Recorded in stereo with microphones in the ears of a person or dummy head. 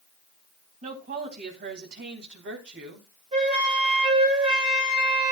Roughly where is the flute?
Right.